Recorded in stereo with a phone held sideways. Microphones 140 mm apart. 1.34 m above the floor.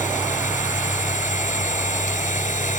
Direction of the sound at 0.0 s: 70° left (ahead or behind).